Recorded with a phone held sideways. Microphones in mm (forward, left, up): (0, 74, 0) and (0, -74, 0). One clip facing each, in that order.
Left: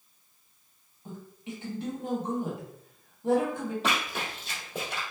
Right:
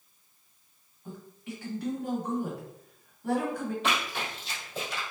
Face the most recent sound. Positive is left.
turn(degrees=60)  # may be behind; listen again after turning